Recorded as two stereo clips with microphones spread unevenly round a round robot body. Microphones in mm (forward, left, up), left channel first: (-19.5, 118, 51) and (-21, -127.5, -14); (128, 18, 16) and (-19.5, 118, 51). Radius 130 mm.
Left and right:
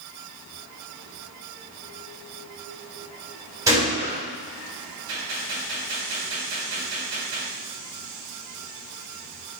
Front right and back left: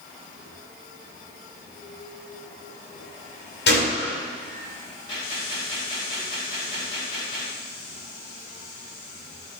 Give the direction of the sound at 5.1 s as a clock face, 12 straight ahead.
4 o'clock.